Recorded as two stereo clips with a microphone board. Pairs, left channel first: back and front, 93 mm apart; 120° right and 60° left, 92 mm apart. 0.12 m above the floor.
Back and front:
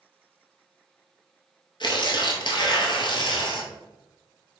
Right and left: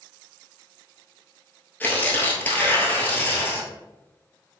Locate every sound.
1.8 s tearing paper: 175° left, 0.9 m